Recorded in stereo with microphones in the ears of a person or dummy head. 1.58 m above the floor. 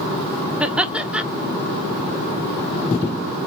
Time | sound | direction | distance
0.6 | laughter | 5° right (ahead or behind) | 0.7 m